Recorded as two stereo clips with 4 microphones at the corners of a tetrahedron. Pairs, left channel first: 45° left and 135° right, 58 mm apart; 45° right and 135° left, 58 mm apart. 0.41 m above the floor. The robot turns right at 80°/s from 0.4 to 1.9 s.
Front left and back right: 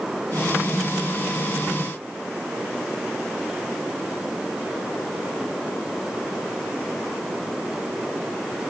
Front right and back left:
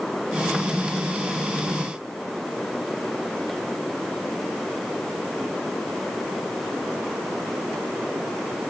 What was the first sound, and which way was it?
Only background noise.